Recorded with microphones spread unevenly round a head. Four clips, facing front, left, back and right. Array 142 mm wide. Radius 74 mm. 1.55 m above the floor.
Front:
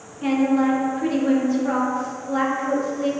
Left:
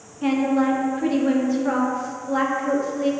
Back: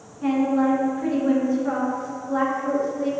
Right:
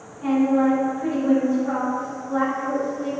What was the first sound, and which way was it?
A woman speaking, 50° left.